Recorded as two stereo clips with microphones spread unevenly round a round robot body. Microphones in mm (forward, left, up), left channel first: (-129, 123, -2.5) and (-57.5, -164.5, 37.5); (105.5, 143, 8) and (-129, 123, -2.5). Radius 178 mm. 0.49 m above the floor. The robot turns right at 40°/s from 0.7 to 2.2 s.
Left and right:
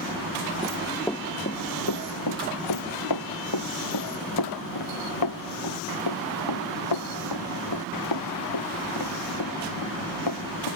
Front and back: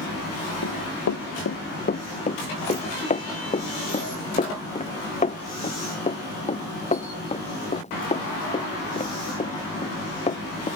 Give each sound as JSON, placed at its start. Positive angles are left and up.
{"t": 0.6, "sound": "running footsteps", "azimuth_deg": 5}